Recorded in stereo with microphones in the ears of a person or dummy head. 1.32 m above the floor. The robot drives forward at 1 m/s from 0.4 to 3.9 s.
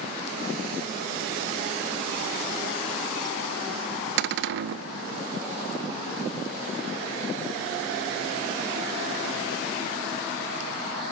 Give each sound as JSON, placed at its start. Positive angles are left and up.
{"t": 4.2, "sound": "a cupboard door", "side_deg": -60, "distance_m": 0.5}